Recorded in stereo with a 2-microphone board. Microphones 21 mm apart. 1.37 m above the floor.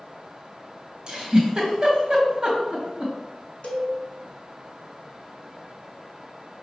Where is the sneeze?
No sneeze in this recording.